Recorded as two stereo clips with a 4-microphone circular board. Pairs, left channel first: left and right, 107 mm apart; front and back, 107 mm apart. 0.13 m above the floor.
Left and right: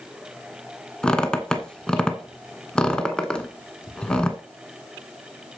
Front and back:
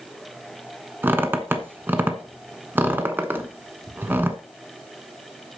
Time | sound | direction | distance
1.0 | a squeak | 160° left | 1.0 m